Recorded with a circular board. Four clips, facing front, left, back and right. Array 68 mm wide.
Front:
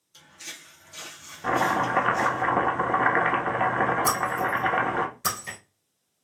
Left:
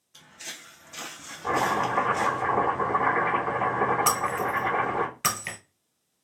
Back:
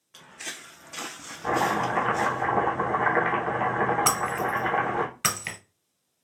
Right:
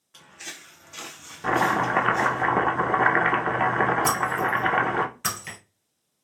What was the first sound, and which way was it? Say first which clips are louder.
Footsteps: right 2 dB, back 5 dB; 155° right.